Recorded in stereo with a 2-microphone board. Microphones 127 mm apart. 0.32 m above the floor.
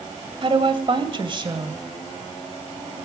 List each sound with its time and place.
0.4 s a woman speaking: 45° right (ahead or behind), 1.8 m; by 1.8 s 35° right (ahead or behind), 1.9 m